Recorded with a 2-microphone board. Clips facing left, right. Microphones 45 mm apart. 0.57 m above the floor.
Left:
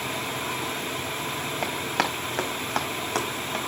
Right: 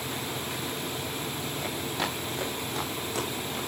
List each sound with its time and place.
1.6 s running footsteps: 70° left (ahead or behind), 5.5 m; by 3.6 s 55° left (ahead or behind), 4.5 m